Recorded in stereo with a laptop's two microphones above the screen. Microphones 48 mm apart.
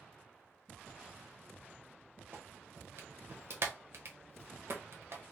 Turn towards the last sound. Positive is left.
turn(degrees=-65)  # may be behind; listen again after turning